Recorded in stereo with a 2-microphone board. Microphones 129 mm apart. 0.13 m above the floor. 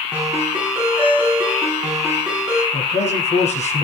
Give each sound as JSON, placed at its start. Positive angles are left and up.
{"t": 0.1, "sound": "a ringtone", "side_deg": -10, "distance_m": 6.0}
{"t": 2.7, "sound": "a man speaking", "side_deg": 60, "distance_m": 3.0}